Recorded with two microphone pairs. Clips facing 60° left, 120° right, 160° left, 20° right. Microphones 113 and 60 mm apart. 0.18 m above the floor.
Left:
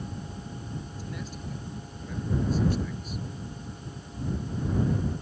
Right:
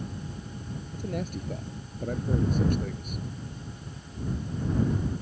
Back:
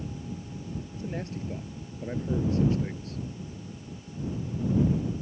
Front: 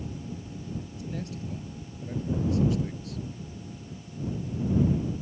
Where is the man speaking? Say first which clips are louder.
Right 5 dB, back 1 dB; 150° right.